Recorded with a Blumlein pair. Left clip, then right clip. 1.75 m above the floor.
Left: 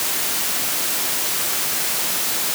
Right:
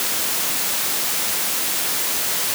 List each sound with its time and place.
Only background noise.